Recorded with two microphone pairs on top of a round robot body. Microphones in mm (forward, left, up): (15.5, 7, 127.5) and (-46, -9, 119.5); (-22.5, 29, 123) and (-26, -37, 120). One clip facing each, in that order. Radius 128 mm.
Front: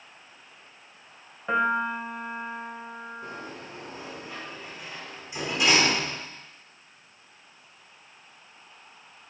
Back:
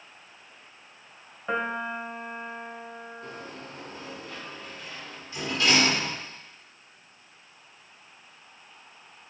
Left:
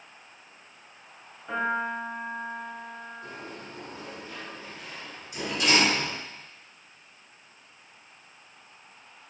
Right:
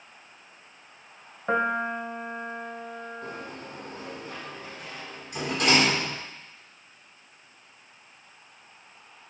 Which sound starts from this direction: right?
A piano, at 1.5 s.